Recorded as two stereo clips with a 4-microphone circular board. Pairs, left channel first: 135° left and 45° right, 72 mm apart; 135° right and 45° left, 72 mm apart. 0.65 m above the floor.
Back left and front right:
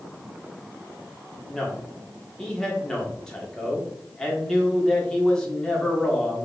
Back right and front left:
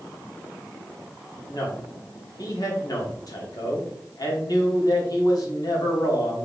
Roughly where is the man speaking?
Behind right.